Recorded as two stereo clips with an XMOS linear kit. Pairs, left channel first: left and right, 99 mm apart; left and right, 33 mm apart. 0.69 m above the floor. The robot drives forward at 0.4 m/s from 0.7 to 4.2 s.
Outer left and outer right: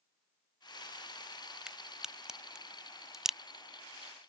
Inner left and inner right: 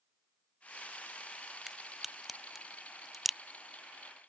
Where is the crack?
5° right (ahead or behind).